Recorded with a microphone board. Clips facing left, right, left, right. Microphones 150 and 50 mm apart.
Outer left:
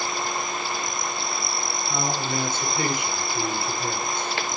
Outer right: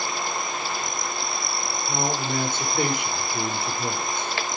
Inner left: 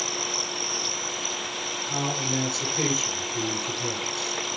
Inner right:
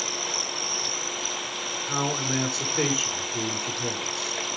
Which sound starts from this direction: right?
A man speaking, at 1.9 s.